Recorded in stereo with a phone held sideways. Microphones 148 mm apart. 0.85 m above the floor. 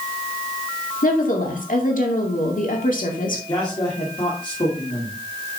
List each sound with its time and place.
1.0 s a woman speaking: 65° left (ahead or behind), 2.5 m
3.5 s a man speaking: 30° left (ahead or behind), 2.5 m